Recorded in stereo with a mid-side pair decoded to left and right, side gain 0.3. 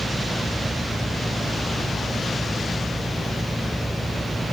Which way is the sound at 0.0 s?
10° right.